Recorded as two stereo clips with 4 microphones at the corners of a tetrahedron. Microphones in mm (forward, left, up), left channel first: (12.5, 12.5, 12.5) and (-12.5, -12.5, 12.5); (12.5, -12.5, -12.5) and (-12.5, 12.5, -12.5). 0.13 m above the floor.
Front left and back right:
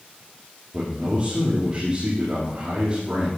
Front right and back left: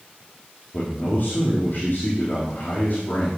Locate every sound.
0.7 s a man speaking: 75° right, 5 m